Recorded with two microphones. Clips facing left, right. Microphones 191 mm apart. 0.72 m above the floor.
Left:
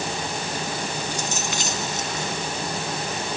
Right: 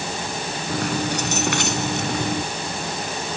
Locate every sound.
0.7 s keys jangling: 65° right (ahead or behind); by 2.4 s 55° right (ahead or behind)